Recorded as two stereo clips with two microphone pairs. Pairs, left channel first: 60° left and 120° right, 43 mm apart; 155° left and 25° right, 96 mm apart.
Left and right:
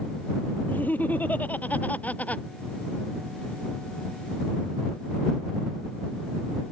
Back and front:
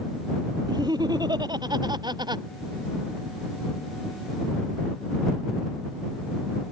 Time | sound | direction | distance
0.7 | laughter | 15° left | ?